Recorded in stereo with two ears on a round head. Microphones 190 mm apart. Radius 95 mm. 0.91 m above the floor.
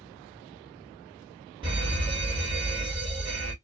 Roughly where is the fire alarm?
Right.